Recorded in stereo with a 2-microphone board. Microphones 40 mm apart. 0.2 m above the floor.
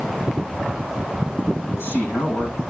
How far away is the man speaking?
About 9 m.